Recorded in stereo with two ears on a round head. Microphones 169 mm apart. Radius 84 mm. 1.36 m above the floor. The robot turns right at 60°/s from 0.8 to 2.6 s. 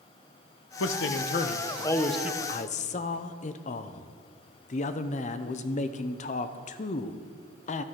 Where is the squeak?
No squeak in this recording.